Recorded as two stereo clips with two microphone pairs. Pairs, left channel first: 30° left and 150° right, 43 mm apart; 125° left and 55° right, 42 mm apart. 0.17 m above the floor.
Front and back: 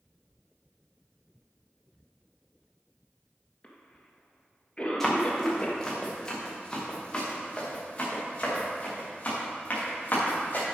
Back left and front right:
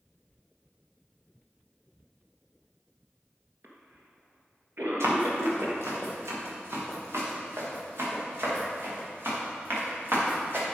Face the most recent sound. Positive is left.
turn(degrees=-20)